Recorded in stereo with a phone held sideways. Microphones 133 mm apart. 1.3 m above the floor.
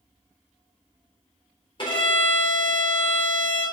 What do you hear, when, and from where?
1.8 s a violin: 35° left (ahead or behind), 4 m